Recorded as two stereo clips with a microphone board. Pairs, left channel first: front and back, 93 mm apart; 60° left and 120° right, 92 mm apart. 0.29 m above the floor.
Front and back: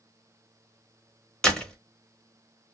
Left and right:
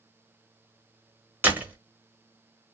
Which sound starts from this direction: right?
A door slam, at 1.4 s.